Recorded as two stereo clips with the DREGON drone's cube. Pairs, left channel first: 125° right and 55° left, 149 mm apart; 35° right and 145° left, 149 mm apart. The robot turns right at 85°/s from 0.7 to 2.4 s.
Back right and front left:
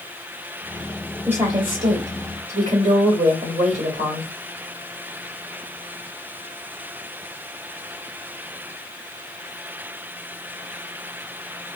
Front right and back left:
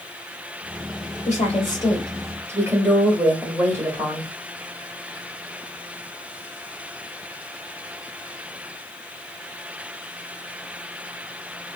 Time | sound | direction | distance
1.3 | a woman speaking | 20° right | 2.5 m